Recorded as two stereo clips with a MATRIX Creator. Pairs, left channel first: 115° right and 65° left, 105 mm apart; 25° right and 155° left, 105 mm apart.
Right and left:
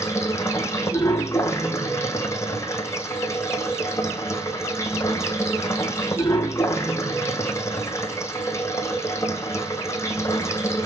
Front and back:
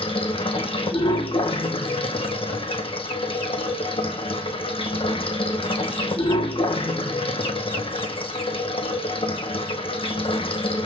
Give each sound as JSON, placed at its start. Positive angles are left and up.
{"t": 0.0, "sound": "running water", "azimuth_deg": -50, "distance_m": 1.7}